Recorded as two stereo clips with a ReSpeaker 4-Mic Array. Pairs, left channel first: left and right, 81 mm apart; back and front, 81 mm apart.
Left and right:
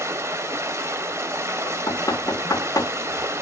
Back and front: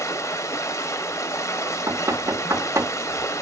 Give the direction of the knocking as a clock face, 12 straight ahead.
10 o'clock.